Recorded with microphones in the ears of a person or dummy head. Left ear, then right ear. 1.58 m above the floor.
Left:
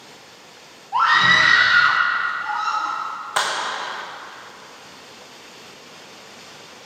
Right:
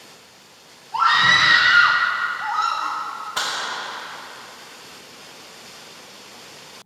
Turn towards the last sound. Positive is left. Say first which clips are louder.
# left 3 dB
turn(degrees=45)  # may be behind; listen again after turning